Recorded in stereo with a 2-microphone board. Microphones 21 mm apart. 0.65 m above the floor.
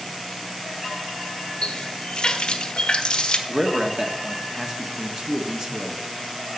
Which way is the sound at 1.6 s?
45° left (ahead or behind).